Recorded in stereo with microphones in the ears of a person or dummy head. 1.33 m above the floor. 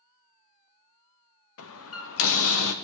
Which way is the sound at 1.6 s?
75° left (ahead or behind).